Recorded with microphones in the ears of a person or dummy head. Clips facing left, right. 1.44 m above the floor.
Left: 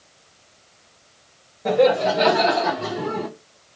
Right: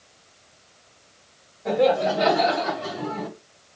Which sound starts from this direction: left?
Laughter, at 1.6 s.